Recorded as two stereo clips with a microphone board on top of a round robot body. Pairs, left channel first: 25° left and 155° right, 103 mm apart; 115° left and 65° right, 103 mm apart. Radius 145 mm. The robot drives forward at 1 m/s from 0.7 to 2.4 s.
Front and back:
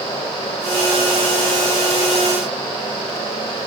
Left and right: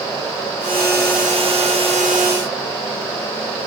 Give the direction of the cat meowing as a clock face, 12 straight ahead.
No cat meowing in this recording.